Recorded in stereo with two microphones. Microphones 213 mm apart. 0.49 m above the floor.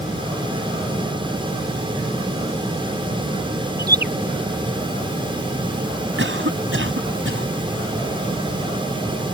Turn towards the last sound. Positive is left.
turn(degrees=-70)  # may be behind; listen again after turning